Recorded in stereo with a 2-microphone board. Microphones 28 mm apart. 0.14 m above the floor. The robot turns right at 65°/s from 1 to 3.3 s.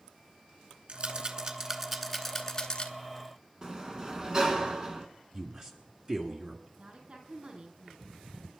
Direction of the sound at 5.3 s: 35° right (ahead or behind).